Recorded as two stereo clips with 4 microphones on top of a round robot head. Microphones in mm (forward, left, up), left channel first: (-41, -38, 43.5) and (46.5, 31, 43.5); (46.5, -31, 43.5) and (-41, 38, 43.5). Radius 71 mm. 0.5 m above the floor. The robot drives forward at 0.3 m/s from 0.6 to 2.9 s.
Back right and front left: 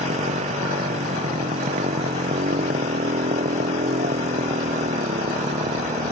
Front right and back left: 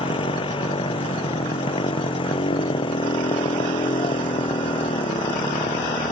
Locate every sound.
0.0 s a motorcycle: 10° left